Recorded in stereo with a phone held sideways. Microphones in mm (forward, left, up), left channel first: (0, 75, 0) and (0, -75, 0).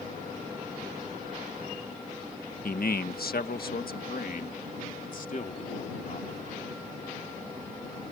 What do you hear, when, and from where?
2.6 s a man speaking: 70° left (ahead or behind); by 6.7 s 55° left (ahead or behind)